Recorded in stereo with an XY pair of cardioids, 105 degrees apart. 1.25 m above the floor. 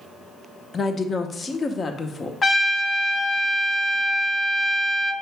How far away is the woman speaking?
About 0.7 m.